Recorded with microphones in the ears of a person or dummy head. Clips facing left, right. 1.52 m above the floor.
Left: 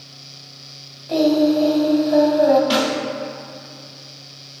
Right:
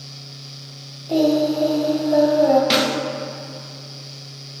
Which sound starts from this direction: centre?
Singing, at 1.1 s.